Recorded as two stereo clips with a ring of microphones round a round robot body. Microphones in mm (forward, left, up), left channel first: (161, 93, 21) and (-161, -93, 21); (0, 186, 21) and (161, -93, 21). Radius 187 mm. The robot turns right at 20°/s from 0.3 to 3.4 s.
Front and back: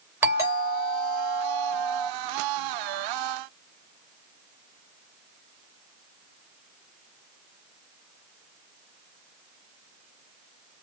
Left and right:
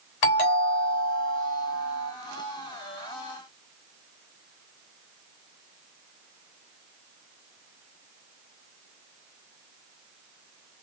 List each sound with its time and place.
0.2 s a doorbell: 125° left, 3.5 m; by 2.1 s 160° left, 3.5 m